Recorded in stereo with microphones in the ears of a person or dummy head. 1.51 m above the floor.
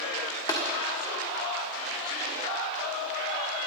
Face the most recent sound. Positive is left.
turn(degrees=20)  # may be behind; listen again after turning